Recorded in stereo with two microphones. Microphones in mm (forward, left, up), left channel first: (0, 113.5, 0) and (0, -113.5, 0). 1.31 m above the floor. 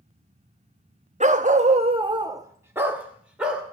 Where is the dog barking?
30° right (ahead or behind), 0.8 m; by 3.6 s 5° right (ahead or behind), 2.5 m.